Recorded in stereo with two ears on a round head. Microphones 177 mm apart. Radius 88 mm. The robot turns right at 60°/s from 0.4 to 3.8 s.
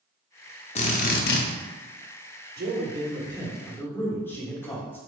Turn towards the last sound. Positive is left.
turn(degrees=10)